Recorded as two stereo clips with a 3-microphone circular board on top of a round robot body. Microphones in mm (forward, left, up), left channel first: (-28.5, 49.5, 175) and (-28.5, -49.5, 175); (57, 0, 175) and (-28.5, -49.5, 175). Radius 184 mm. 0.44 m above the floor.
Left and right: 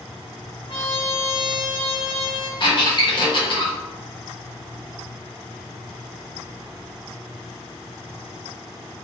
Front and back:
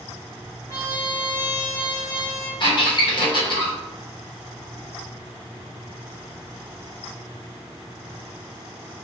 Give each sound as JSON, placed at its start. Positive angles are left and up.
{"t": 0.7, "sound": "a trumpet", "azimuth_deg": 85, "distance_m": 1.3}
{"t": 2.6, "sound": "a squeak", "azimuth_deg": 60, "distance_m": 1.1}